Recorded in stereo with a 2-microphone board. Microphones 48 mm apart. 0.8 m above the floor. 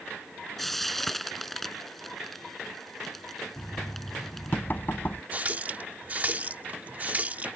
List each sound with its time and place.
0.6 s frying: 5° left (ahead or behind)
3.6 s knocking: 40° left (ahead or behind)
5.3 s a running tap: 30° right (ahead or behind)